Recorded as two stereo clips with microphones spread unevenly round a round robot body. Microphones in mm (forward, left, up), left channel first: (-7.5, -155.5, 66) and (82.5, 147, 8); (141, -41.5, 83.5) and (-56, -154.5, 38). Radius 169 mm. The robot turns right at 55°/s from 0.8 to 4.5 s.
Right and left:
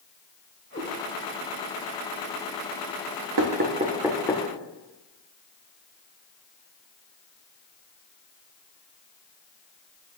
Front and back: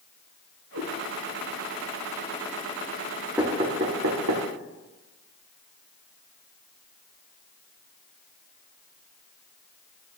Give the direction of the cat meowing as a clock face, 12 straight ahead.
6 o'clock.